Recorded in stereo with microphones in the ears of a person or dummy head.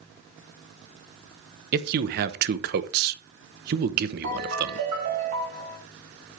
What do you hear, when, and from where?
1.7 s a man speaking: 50° right (ahead or behind), 1.1 m
4.2 s a ringtone: 55° right (ahead or behind), 4.5 m